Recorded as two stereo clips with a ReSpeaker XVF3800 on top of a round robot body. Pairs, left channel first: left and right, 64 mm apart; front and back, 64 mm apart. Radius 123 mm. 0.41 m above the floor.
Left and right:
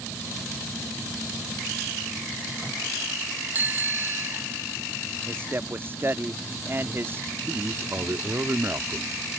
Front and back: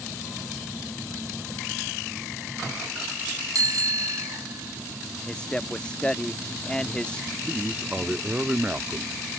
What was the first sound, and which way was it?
A bicycle bell, 155° right.